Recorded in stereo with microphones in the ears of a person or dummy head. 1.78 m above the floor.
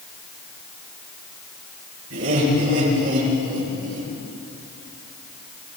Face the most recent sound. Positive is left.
turn(degrees=-70)  # may be behind; listen again after turning